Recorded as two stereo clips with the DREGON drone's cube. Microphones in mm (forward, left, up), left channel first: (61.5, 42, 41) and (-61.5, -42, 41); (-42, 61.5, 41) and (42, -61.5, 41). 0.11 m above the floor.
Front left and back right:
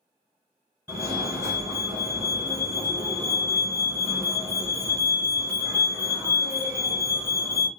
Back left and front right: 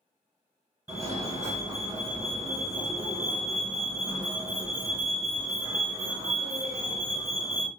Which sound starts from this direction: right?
A fire alarm, at 0.9 s.